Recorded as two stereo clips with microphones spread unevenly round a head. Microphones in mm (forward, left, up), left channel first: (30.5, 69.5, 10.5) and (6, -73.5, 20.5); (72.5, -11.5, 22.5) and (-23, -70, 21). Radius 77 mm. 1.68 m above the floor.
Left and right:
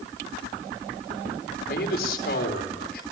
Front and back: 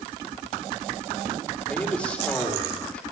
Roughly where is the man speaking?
Behind left.